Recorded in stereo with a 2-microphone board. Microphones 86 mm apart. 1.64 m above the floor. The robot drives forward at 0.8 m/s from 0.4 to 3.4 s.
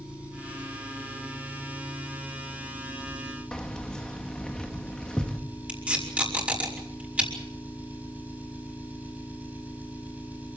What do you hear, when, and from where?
0.0 s an engine running: 15° right (ahead or behind), 8 m; by 10.6 s 20° right (ahead or behind), 6 m
3.5 s keys jangling: 10° left (ahead or behind), 1.7 m
5.7 s tape being pulled: 15° right (ahead or behind), 5.5 m